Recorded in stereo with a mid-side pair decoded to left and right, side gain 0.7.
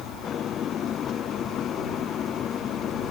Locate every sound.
0.0 s an engine running: 40° left